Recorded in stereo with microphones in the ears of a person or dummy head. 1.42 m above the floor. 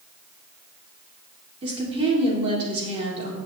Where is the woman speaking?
35° right (ahead or behind), 3.5 m.